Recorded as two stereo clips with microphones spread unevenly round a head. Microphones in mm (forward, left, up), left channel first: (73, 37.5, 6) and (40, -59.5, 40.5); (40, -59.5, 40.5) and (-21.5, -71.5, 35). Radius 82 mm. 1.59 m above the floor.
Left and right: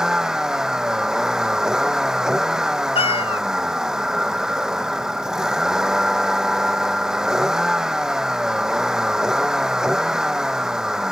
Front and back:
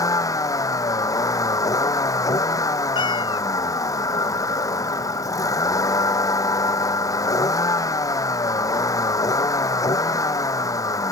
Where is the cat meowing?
35° left.